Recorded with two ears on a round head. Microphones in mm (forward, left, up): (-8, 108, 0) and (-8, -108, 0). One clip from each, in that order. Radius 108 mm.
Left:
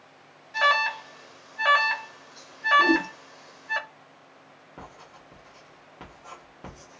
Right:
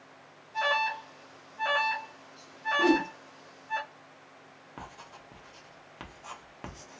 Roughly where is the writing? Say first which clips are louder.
Even; right.